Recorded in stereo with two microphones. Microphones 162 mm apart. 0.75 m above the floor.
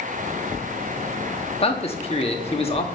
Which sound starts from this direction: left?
A man speaking, at 1.6 s.